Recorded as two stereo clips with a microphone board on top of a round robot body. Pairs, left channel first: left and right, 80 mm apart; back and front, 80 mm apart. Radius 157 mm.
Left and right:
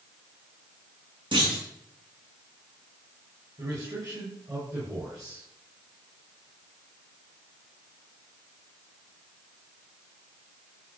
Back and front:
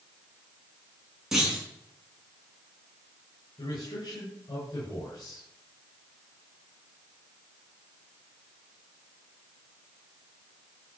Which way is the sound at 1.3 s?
85° right.